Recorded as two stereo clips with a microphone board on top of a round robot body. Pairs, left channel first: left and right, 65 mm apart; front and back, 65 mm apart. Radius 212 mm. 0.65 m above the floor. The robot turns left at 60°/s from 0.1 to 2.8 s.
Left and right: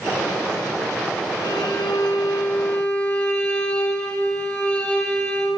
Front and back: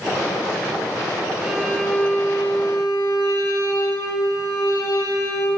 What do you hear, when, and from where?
1.4 s a violin: 100° left, 7 m; by 5.5 s 20° left, 7 m